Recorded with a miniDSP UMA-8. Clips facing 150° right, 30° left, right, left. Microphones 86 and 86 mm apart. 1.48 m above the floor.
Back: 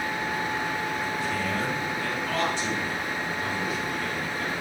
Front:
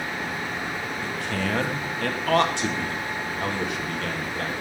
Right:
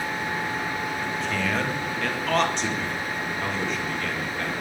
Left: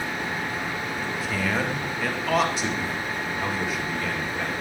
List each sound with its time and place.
1.0 s a man speaking: 5° left, 2.5 m